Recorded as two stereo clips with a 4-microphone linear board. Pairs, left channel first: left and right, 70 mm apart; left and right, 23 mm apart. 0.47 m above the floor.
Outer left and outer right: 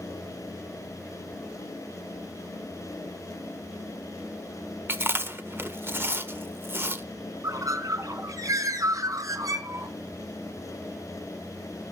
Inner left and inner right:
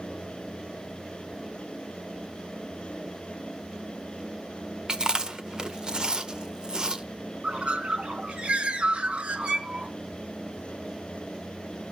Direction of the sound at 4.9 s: 35° right (ahead or behind).